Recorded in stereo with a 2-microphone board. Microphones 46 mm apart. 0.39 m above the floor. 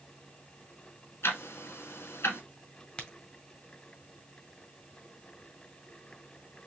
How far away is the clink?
I don't hear a clink.